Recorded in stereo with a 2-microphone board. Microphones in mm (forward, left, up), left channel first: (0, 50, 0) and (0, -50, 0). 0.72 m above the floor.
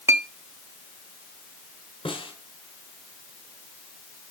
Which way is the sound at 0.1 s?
30° right (ahead or behind).